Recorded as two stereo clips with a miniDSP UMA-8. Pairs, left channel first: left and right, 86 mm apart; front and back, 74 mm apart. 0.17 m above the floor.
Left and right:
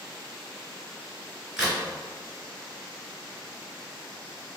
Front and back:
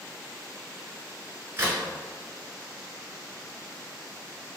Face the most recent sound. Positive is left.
turn(degrees=-165)